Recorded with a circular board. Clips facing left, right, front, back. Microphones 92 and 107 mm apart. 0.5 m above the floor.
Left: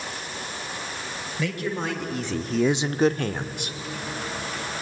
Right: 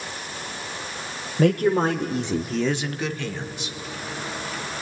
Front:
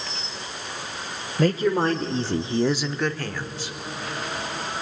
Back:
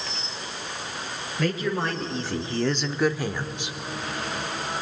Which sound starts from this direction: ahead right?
A woman speaking, at 1.4 s.